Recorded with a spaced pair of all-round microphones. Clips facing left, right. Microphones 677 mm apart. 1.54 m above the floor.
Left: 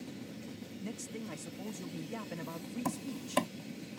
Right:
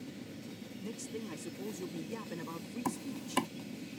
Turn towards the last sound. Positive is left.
turn(degrees=10)  # may be behind; listen again after turning